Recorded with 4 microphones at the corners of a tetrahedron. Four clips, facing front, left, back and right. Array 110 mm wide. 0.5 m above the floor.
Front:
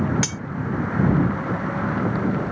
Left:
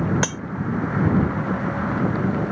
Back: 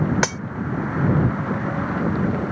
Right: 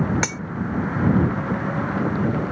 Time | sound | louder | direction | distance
0.2 | cutlery clinking | left 1 dB, back 7 dB | 160° left | ?